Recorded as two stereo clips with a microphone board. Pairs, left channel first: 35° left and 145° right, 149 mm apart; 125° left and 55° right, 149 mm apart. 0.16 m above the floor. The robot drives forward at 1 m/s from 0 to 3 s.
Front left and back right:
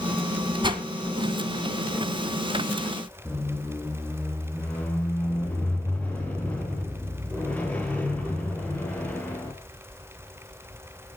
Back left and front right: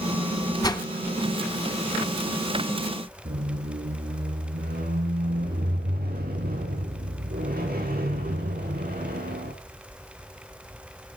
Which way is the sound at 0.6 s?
175° left.